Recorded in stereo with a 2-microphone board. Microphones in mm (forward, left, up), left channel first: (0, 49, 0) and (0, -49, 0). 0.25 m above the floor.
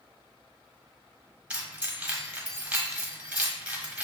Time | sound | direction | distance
1.5 | keys jangling | 15° right (ahead or behind) | 0.9 m